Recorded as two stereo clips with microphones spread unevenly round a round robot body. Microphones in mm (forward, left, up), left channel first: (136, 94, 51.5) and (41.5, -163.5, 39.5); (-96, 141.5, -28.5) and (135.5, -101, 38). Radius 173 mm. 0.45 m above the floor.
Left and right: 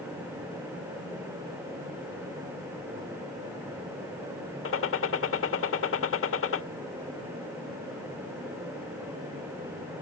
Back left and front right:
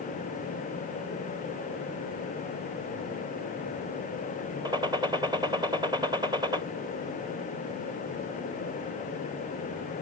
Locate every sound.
4.7 s a gunshot: 35° left